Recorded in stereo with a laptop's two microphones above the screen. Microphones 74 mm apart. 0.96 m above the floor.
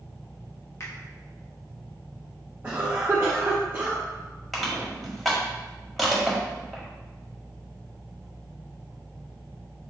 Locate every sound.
0.8 s a finger snap: 40° left (ahead or behind), 1.4 m
2.6 s a cough: 25° right (ahead or behind), 0.9 m
4.5 s crushing: centre (ahead or behind), 1.5 m